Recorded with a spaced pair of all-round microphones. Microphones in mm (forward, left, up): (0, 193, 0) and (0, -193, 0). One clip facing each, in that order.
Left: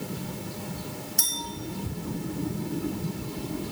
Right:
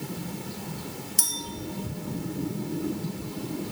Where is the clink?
15° right (ahead or behind), 0.7 m.